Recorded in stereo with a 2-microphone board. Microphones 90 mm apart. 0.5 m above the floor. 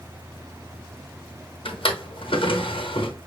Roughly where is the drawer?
Left.